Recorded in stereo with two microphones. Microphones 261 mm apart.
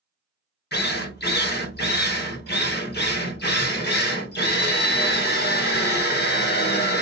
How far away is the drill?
About 0.6 m.